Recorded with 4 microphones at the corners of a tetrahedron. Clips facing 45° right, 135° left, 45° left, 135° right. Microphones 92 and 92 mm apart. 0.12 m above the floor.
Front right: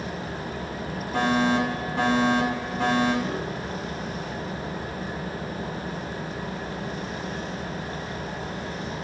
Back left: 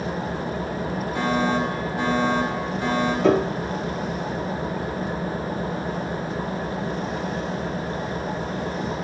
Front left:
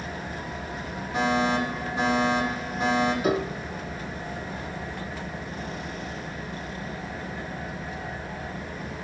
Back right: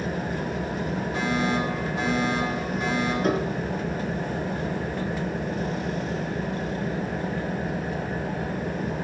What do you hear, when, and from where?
0.0 s an engine running: 170° right, 1.7 m
1.1 s a fire alarm: 25° right, 10 m
3.2 s a piano: 130° left, 0.9 m